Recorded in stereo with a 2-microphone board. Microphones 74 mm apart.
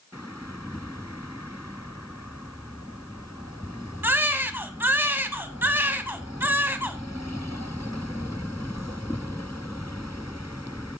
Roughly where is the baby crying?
Right.